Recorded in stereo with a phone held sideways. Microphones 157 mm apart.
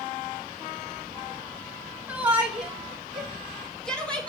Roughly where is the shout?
Centre.